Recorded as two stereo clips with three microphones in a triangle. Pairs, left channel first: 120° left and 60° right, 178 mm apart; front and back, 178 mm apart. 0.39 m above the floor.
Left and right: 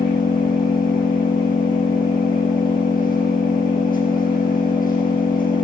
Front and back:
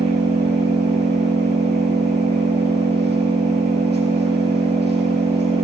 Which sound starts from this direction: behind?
An engine running, at 0.0 s.